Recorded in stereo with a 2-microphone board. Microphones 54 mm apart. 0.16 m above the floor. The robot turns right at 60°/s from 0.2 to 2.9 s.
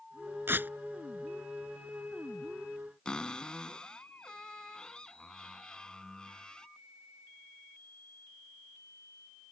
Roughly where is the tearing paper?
Right.